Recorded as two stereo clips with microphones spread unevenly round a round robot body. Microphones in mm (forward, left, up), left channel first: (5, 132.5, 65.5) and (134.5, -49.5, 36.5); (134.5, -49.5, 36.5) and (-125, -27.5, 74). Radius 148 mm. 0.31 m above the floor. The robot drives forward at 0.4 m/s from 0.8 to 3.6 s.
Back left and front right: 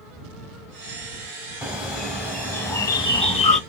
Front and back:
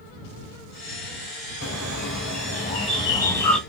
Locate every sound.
1.6 s a bird: 30° left, 1.2 m; by 3.6 s 75° left, 0.8 m